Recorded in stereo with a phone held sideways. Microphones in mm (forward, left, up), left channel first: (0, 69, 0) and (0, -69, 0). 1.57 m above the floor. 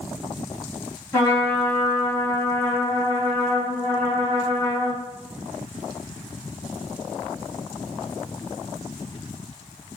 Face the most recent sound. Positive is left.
turn(degrees=25)  # may be behind; listen again after turning